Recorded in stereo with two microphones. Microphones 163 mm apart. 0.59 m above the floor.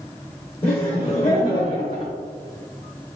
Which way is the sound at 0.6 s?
40° left (ahead or behind).